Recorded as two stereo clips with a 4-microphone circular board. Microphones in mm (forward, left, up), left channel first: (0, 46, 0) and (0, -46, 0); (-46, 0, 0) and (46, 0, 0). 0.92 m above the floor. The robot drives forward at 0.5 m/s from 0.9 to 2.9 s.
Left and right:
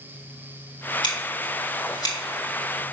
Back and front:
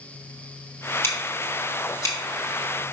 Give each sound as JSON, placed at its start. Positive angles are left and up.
{"t": 1.0, "sound": "scissors", "azimuth_deg": 120, "distance_m": 2.5}